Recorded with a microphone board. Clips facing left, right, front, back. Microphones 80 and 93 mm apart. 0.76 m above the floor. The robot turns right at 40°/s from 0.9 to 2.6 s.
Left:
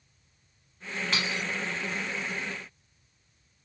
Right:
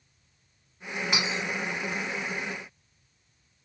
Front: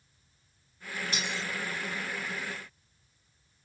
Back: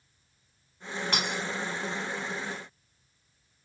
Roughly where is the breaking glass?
Behind.